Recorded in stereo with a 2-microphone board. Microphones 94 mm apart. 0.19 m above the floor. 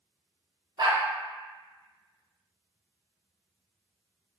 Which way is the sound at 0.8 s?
55° right (ahead or behind).